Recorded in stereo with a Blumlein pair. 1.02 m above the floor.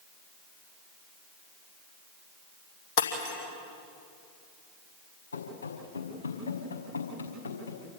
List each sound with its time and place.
3.0 s breaking glass: 45° left, 4.5 m
5.3 s running footsteps: 65° left, 5 m